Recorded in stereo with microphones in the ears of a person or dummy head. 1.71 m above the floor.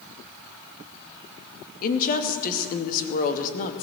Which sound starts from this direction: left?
A woman speaking, at 1.8 s.